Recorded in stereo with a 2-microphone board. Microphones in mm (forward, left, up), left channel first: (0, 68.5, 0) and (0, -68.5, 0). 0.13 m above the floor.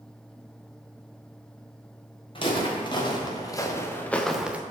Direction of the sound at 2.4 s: 40° left (ahead or behind).